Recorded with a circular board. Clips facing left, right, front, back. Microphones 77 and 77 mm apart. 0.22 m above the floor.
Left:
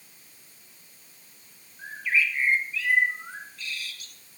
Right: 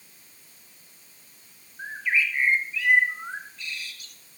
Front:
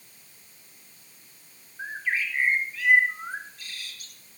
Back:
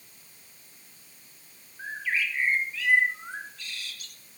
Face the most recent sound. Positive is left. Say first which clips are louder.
# even, front 1 dB
turn(degrees=-30)